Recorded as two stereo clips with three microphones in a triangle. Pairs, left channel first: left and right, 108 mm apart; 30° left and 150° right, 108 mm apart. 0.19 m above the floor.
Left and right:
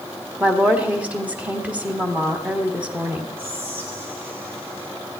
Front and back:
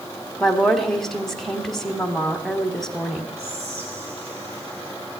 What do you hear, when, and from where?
0.4 s a woman speaking: 50° right, 1.3 m
3.4 s whispering: 160° right, 3.5 m